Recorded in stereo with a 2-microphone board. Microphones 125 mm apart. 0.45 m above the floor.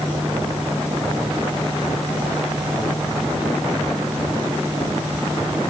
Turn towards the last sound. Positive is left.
No sound to turn to.